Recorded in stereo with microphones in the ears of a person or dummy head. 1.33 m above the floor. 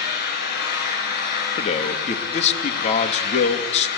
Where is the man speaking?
35° left (ahead or behind), 2 m.